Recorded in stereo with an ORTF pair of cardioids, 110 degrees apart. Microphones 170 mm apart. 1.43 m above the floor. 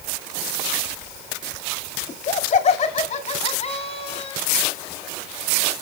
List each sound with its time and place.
2.1 s laughter: 45° left, 3 m; by 4.4 s 30° left, 4.5 m